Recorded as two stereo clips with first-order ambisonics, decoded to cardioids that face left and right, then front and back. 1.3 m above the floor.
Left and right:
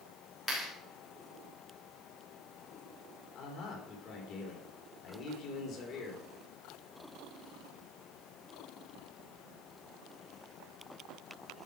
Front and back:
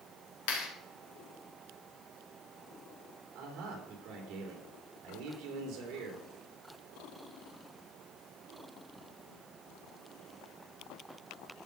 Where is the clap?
15° left, 3 m.